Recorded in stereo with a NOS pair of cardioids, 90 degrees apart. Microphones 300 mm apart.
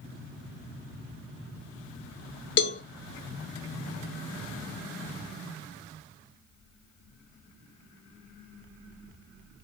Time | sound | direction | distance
2.6 | a cowbell | 40° left | 0.8 m